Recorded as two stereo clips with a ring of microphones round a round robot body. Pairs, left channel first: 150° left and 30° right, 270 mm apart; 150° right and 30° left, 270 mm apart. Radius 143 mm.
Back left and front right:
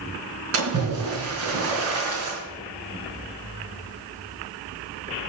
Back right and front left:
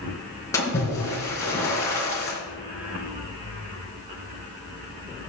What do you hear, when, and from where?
0.5 s a splash: 70° right, 3.5 m